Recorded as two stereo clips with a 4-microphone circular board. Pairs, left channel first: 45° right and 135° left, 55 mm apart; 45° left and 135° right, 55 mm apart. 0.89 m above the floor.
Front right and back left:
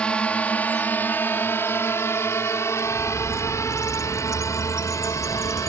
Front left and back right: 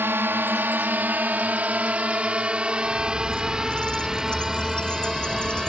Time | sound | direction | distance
0.0 | a drone | 110° right | ?
2.8 | a bird | 25° right | ?